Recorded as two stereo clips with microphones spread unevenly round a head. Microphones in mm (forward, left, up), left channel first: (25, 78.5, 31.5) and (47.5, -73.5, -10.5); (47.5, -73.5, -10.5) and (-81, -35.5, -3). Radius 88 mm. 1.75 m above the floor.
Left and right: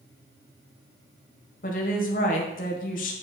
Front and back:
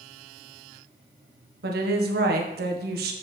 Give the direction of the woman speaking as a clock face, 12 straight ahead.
7 o'clock.